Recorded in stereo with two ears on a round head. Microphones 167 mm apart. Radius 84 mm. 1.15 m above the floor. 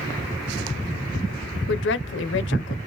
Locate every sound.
1.7 s a woman speaking: 70° left (ahead or behind), 0.6 m